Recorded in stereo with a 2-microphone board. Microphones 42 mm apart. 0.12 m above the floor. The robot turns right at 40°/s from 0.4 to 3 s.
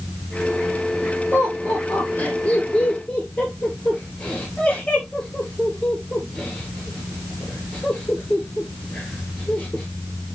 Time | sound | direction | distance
1.3 | laughter | 50° left (ahead or behind) | 2.5 m